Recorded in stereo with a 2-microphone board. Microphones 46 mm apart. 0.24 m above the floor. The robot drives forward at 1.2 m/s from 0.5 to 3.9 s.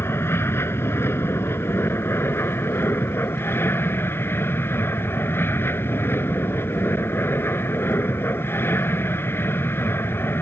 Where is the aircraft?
60° left (ahead or behind); by 10.4 s 55° left (ahead or behind).